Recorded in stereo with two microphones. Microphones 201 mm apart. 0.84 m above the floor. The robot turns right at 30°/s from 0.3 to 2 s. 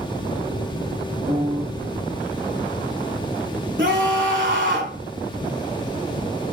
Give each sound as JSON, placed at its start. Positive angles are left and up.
{"t": 1.3, "sound": "a piano", "side_deg": -25, "distance_m": 1.0}
{"t": 3.8, "sound": "a scream", "side_deg": -65, "distance_m": 2.5}